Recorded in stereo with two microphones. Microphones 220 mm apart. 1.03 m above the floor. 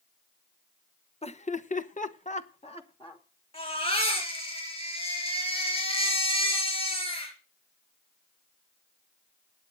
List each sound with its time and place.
1.2 s laughter: 30° left (ahead or behind), 0.8 m; by 3.2 s 25° left (ahead or behind), 1.2 m
3.5 s a baby crying: 25° left (ahead or behind), 5 m